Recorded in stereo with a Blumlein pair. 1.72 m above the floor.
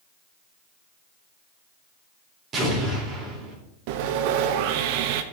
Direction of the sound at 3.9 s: 45° right.